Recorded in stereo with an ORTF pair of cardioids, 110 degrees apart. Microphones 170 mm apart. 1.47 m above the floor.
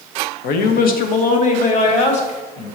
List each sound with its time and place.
0.4 s a man speaking: 70° left, 1.0 m; by 2.7 s 40° left, 2.5 m